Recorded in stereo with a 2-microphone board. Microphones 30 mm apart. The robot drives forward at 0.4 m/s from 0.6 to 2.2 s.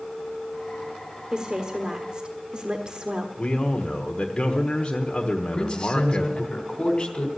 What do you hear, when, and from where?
1.3 s a woman speaking: 30° right (ahead or behind), 1.3 m
3.4 s a man speaking: 25° left (ahead or behind), 1.2 m
5.5 s a man speaking: 25° left (ahead or behind), 3 m